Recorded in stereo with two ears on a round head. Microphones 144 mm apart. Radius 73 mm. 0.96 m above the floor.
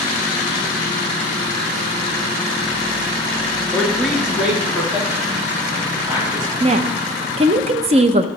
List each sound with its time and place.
3.7 s a man speaking: 5° left (ahead or behind), 1.0 m; by 6.5 s 15° right (ahead or behind), 3 m
6.6 s a woman speaking: 40° right (ahead or behind), 0.5 m